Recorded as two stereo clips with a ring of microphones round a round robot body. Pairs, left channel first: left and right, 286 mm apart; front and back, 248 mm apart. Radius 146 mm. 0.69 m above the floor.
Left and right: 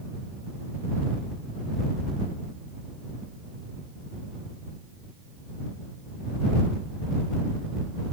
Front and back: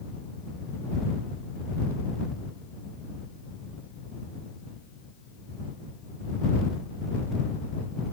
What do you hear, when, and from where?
Only background noise.